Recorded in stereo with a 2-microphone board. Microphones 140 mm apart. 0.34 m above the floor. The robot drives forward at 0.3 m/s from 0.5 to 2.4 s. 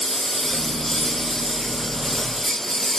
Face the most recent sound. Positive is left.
turn(degrees=0)  # may be behind; listen again after turning